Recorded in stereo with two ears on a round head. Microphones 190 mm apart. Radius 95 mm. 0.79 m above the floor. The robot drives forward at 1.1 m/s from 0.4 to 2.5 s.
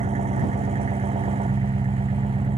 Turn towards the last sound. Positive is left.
turn(degrees=-25)  # may be behind; listen again after turning